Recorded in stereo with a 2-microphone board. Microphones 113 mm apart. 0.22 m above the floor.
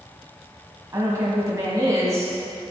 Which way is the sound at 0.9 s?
30° right (ahead or behind).